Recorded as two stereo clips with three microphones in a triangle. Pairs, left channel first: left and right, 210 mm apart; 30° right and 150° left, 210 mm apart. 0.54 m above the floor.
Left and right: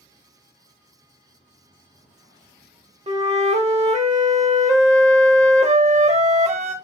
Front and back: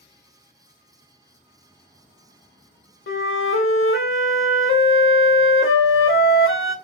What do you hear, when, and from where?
3.1 s a flute: 30° right, 0.6 m